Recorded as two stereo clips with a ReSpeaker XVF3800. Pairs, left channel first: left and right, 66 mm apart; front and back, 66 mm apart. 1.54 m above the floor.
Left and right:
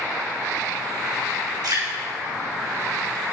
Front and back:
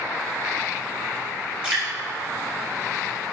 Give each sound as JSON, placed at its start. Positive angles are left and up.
{"t": 1.6, "sound": "dripping", "azimuth_deg": -105, "distance_m": 2.5}